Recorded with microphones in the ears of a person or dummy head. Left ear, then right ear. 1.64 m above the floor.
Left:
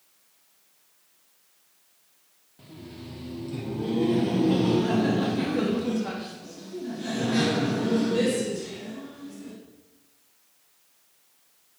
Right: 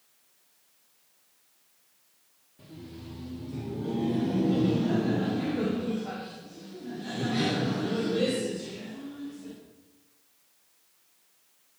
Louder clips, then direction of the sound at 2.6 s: Left 2 dB; 15° left (ahead or behind).